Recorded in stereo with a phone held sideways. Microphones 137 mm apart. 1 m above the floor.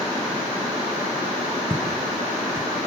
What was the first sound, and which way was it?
Footsteps, 15° right (ahead or behind).